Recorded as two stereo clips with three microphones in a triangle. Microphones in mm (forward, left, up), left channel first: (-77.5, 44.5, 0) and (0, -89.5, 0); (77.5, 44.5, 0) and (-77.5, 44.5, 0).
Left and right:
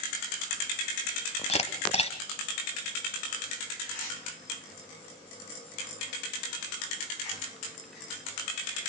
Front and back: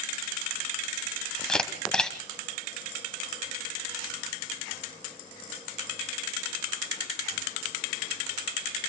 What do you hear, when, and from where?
1.5 s a camera shutter: 85° left, 1.7 m